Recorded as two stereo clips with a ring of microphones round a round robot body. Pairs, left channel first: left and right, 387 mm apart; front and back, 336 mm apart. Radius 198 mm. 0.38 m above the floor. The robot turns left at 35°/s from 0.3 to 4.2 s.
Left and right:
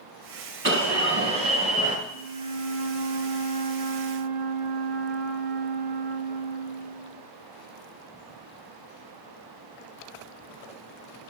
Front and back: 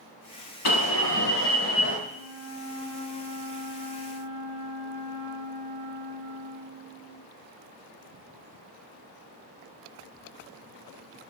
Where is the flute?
5° right, 6 m; by 7.2 s 80° right, 6 m.